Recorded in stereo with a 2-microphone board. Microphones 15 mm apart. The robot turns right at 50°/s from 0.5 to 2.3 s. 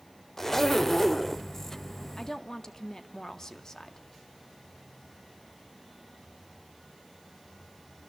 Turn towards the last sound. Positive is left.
turn(degrees=40)  # may be behind; listen again after turning